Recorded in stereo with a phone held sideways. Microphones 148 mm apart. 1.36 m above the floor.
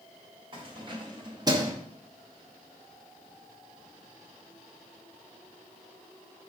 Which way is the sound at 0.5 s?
35° right (ahead or behind).